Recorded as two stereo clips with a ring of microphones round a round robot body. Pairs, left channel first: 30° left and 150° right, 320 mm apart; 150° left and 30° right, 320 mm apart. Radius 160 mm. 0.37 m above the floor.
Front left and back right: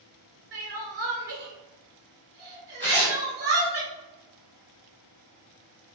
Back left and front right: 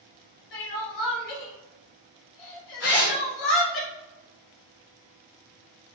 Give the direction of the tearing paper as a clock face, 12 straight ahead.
8 o'clock.